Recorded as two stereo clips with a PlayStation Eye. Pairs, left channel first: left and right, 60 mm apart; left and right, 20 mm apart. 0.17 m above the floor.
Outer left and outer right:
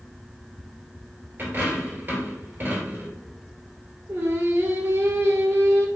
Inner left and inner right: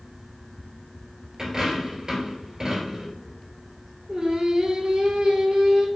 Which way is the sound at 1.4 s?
35° right (ahead or behind).